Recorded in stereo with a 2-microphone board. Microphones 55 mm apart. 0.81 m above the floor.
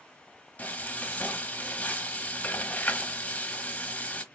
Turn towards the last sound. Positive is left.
turn(degrees=30)  # may be behind; listen again after turning